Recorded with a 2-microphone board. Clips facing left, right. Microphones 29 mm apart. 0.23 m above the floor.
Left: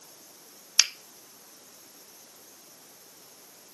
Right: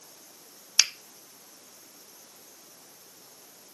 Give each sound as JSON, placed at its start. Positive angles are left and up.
{"t": 0.8, "sound": "a finger snap", "side_deg": -5, "distance_m": 0.8}